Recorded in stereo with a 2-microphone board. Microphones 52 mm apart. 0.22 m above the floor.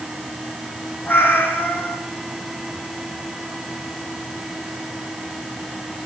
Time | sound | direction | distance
1.1 | a cat meowing | 45° left (ahead or behind) | 6 m